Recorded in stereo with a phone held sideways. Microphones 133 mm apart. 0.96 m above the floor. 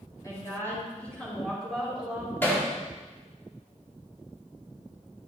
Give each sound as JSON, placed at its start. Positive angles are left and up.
{"t": 0.2, "sound": "a woman speaking", "side_deg": 25, "distance_m": 5.0}
{"t": 2.4, "sound": "hammering", "side_deg": 15, "distance_m": 2.0}